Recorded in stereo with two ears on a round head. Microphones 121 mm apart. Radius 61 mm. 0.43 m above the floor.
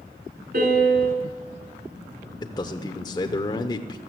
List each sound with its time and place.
0.5 s a piano: 65° right (ahead or behind), 4.5 m
2.4 s a man speaking: 30° left (ahead or behind), 0.9 m